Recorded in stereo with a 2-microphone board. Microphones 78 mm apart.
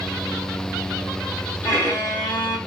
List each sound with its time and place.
1.6 s a violin: 30° left (ahead or behind), 2 m